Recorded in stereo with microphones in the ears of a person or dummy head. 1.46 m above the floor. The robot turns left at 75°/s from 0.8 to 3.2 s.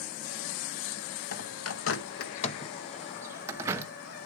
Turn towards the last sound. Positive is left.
turn(degrees=-10)  # may be behind; listen again after turning